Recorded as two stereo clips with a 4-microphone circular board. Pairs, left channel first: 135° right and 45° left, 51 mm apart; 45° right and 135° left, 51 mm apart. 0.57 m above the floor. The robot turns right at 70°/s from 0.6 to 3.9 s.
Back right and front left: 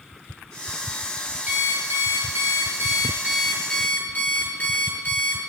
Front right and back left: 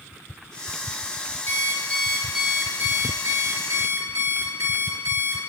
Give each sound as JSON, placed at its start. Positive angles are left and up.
{"t": 1.5, "sound": "an alarm clock", "azimuth_deg": -10, "distance_m": 5.0}